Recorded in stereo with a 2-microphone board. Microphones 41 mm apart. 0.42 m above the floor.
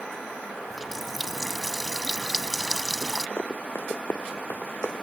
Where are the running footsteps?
75° left (ahead or behind); by 5.0 s 50° left (ahead or behind).